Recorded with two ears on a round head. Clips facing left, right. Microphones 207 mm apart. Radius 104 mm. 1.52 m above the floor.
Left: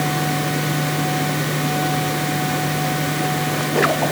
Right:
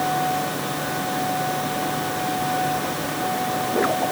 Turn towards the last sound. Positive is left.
No sound to turn to.